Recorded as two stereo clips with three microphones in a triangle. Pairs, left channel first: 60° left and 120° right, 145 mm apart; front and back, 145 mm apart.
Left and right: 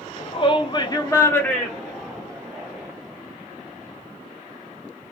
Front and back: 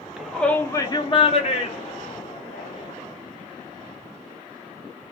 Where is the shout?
95° left, 0.7 m; by 2.9 s 40° right, 1.4 m.